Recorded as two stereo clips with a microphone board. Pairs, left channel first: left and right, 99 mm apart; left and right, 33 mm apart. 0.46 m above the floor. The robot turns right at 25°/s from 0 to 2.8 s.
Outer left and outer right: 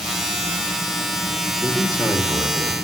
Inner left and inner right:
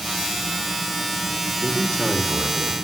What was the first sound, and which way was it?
A man speaking, 15° left (ahead or behind).